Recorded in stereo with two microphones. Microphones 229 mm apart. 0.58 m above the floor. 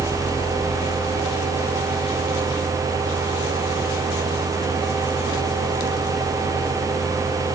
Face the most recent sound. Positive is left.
No sound to turn to.